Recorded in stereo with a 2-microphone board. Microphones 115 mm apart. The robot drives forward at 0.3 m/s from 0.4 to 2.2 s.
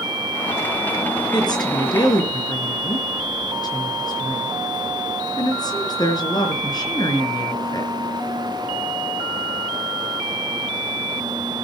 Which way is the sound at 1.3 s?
40° left (ahead or behind).